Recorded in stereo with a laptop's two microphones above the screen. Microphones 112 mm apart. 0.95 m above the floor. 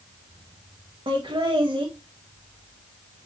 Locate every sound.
1.1 s laughter: 50° right (ahead or behind), 0.7 m